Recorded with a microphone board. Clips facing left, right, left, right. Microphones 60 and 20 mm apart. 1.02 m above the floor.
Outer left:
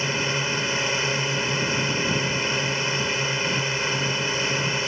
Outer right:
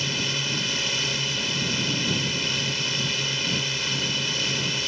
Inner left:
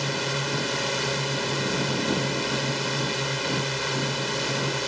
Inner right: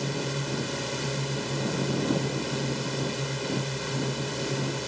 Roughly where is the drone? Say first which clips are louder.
Outer left 4 dB, inner left 4 dB; left.